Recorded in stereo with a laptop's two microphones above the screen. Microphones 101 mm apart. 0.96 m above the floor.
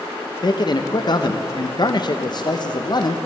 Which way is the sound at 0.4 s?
45° left (ahead or behind).